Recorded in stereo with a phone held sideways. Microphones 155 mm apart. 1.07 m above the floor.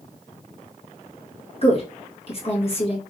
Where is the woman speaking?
40° left (ahead or behind), 1.3 m.